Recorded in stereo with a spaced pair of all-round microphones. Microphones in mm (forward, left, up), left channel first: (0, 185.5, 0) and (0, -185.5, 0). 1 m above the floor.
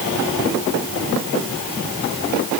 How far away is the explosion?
No explosion in this recording.